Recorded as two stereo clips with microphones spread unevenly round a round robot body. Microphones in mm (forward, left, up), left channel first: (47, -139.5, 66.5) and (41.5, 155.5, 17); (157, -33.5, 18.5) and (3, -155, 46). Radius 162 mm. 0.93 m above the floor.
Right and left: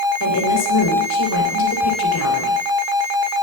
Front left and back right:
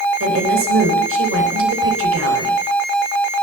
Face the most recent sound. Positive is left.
turn(degrees=-135)